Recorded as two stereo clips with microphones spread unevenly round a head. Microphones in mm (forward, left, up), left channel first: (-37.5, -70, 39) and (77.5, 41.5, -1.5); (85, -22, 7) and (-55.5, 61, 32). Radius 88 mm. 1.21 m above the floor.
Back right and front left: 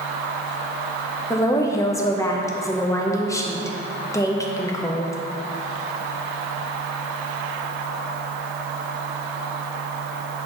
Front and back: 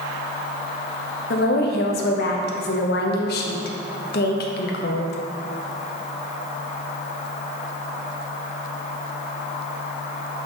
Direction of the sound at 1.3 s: 60° right.